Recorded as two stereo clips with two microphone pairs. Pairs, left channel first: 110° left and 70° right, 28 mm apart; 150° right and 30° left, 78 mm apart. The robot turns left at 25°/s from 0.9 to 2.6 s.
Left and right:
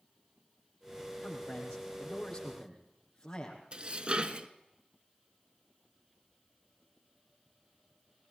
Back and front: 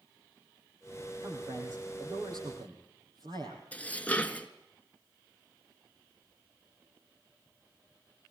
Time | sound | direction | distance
1.2 | a man speaking | 85° left | 5 m
3.7 | dishes clattering | 85° right | 1.0 m